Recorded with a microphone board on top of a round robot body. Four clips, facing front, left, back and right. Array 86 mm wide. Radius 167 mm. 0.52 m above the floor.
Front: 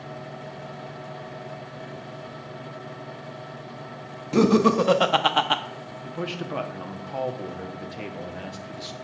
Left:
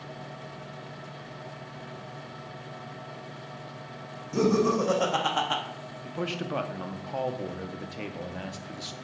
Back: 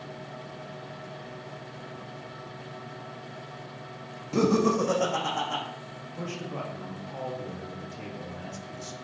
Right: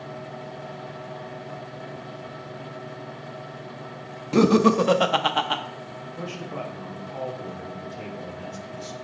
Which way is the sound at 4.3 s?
65° right.